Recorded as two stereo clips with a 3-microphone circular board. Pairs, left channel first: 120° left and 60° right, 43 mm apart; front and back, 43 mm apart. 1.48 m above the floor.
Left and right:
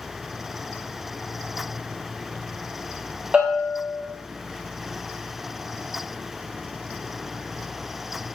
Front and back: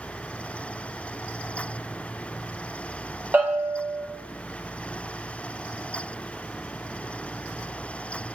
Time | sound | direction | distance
3.3 | a bell | 130° right | 1.1 m